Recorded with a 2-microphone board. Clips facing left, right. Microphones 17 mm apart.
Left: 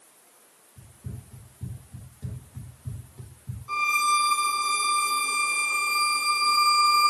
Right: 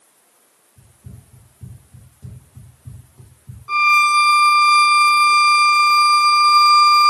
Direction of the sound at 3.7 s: 35° right (ahead or behind).